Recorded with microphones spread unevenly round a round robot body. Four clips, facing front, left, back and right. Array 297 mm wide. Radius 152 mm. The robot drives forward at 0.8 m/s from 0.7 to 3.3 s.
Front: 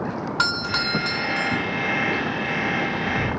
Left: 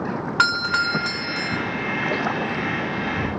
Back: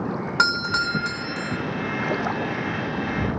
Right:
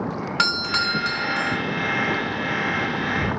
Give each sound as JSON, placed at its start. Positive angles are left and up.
{"t": 0.4, "sound": "a doorbell", "azimuth_deg": -175, "distance_m": 1.5}